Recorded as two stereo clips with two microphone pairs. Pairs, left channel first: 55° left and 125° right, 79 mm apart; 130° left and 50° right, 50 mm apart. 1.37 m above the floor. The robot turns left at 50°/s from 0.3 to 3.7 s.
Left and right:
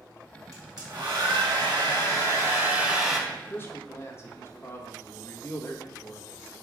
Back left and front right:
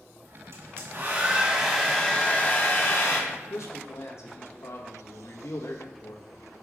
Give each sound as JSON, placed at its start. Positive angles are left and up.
{"t": 0.5, "sound": "a hair dryer", "azimuth_deg": -80, "distance_m": 2.0}
{"t": 3.3, "sound": "a man speaking", "azimuth_deg": 135, "distance_m": 1.3}